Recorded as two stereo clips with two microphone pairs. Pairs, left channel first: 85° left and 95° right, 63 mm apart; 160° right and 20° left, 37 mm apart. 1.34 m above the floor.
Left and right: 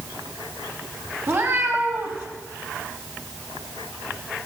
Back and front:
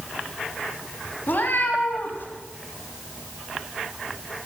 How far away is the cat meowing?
About 2.5 m.